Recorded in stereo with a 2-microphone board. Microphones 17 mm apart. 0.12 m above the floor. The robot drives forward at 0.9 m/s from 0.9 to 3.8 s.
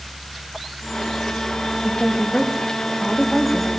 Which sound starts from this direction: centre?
A woman speaking, at 1.8 s.